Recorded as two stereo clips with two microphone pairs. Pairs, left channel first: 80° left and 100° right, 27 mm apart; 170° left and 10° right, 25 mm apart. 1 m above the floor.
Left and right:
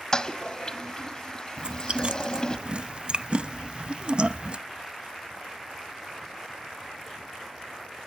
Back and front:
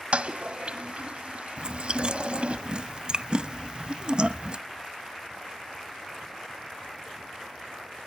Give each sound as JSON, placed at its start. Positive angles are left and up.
{"t": 0.1, "sound": "a toilet flushing", "azimuth_deg": 25, "distance_m": 1.4}
{"t": 1.6, "sound": "chewing", "azimuth_deg": -55, "distance_m": 0.7}